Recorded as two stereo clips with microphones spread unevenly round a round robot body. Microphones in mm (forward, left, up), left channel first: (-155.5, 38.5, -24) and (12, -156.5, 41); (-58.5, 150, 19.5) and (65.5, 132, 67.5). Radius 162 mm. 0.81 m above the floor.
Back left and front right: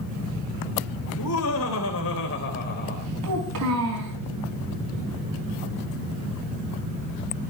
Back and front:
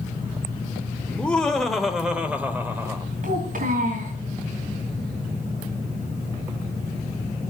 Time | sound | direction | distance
1.1 | laughter | 95° left | 3.5 m
3.2 | a child speaking | 5° right | 5 m